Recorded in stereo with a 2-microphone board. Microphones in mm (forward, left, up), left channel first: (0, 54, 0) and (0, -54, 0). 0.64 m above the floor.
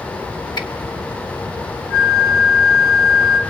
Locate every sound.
0.6 s a finger snap: 45° left (ahead or behind), 1.5 m
1.9 s a flute: 40° left (ahead or behind), 2 m